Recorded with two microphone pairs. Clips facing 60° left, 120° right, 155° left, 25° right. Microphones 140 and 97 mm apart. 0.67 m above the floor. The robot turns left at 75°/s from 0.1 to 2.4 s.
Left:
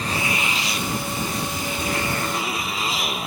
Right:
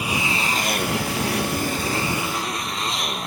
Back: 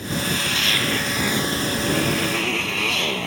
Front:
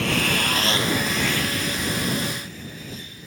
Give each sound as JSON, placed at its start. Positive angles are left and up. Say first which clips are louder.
{"t": 0.0, "sound": "a motorcycle", "louder": "right 1 dB, front 2 dB", "azimuth_deg": -40}